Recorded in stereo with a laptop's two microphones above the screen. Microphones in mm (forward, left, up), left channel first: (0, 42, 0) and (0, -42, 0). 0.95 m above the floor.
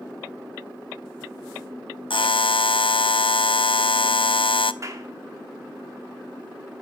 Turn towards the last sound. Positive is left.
turn(degrees=-40)  # may be behind; listen again after turning